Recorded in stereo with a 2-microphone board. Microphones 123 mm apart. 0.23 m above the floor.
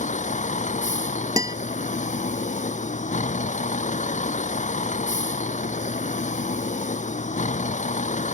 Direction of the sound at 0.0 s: 80° left.